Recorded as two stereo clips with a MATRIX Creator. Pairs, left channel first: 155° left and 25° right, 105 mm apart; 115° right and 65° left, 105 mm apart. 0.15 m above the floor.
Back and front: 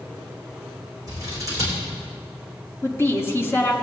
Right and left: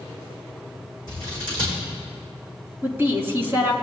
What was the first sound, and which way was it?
Scissors, 30° left.